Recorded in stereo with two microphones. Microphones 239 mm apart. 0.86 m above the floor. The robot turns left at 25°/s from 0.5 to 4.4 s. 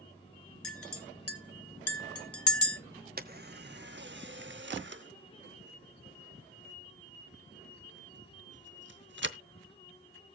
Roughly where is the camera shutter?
Right.